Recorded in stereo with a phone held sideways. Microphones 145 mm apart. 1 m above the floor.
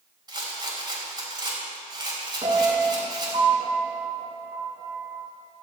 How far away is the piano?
About 3 m.